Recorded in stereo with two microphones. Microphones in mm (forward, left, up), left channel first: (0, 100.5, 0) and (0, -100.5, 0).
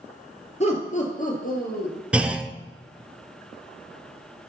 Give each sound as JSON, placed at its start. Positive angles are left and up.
{"t": 0.6, "sound": "laughter", "side_deg": 35, "distance_m": 2.5}
{"t": 2.1, "sound": "a clunk", "side_deg": -5, "distance_m": 0.5}